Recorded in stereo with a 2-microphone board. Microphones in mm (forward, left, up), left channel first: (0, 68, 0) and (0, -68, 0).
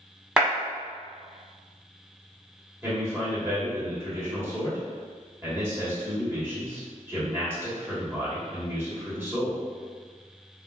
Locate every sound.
0.4 s a clap: 5° right (ahead or behind), 1.2 m
2.8 s a man speaking: 15° right (ahead or behind), 1.7 m